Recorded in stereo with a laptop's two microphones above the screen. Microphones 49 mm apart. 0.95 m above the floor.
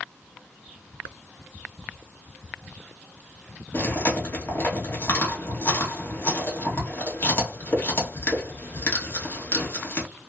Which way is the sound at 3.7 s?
45° left (ahead or behind).